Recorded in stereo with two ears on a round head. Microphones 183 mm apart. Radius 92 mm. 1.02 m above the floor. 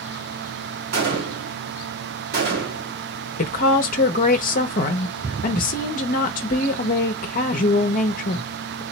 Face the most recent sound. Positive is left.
turn(degrees=40)  # may be behind; listen again after turning